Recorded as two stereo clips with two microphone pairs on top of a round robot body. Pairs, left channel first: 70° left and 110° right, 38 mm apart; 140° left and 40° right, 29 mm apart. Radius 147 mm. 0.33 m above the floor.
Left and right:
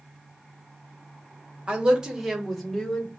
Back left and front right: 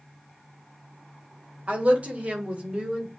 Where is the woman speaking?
60° right, 1.4 m; by 3.1 s 5° left, 1.5 m.